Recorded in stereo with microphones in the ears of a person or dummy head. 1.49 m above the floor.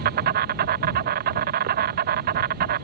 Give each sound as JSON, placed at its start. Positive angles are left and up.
{"t": 0.0, "sound": "an insect", "side_deg": -60}